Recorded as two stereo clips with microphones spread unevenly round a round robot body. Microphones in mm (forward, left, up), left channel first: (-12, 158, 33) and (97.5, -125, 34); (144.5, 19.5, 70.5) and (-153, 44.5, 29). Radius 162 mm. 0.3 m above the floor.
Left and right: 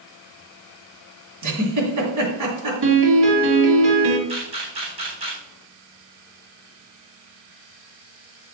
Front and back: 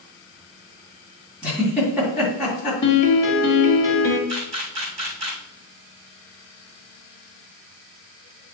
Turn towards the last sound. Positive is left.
turn(degrees=-140)